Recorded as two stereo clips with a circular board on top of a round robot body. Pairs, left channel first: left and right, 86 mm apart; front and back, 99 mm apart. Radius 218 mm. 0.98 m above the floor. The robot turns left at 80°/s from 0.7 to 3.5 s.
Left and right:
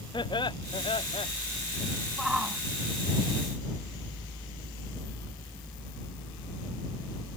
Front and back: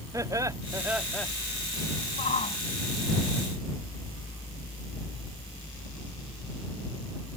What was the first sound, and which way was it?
Laughter, 120° left.